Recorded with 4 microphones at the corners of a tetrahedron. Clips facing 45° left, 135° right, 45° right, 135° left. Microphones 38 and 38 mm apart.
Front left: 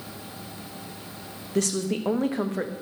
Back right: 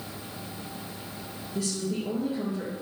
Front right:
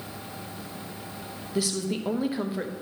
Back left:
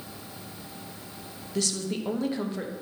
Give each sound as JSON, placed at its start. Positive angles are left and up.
{"t": 1.6, "sound": "a woman speaking", "azimuth_deg": 35, "distance_m": 1.0}